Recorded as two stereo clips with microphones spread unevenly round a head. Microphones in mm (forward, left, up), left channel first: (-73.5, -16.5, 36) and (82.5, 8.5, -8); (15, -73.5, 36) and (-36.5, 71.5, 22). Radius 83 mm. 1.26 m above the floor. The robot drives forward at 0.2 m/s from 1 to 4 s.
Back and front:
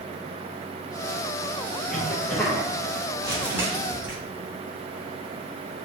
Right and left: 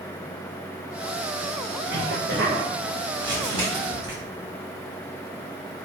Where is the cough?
95° left, 1.1 m; by 2.7 s 105° left, 1.1 m.